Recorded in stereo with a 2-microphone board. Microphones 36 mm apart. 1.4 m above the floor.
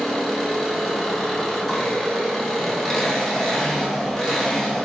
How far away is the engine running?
About 0.7 m.